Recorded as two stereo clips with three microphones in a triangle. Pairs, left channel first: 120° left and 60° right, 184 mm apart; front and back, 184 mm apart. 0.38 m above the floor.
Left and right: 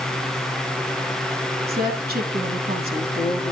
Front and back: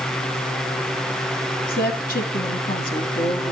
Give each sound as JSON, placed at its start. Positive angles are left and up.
{"t": 1.7, "sound": "a woman speaking", "azimuth_deg": -35, "distance_m": 2.5}